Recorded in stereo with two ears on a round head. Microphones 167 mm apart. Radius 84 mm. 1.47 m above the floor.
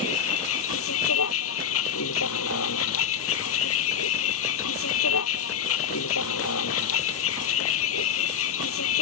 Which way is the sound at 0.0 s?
85° left.